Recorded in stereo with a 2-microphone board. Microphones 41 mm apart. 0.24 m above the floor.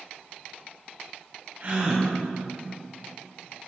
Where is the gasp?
45° right (ahead or behind), 2 m.